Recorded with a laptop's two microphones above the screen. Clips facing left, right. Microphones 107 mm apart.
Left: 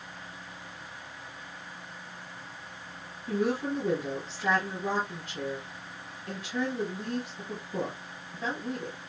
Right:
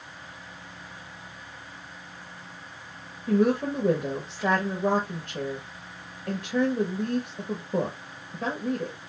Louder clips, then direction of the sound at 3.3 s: Right 6 dB; 55° right (ahead or behind).